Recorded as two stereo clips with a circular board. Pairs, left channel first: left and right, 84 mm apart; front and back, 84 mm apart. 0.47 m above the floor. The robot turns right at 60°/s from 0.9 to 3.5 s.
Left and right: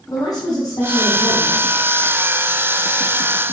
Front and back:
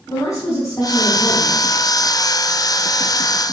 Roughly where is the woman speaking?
Ahead left.